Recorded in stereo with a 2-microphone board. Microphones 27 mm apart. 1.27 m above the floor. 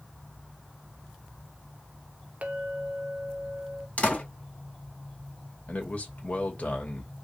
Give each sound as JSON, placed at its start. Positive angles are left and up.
{"t": 2.4, "sound": "a clink", "side_deg": -55, "distance_m": 0.9}
{"t": 4.0, "sound": "a door slam", "side_deg": 45, "distance_m": 2.0}
{"t": 5.7, "sound": "a man speaking", "side_deg": 50, "distance_m": 2.0}